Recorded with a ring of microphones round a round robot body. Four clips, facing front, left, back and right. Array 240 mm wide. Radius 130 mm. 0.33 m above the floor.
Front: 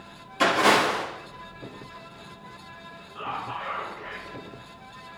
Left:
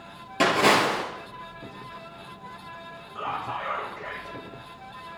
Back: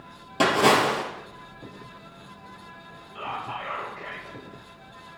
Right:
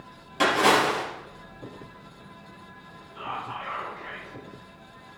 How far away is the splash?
About 3.5 m.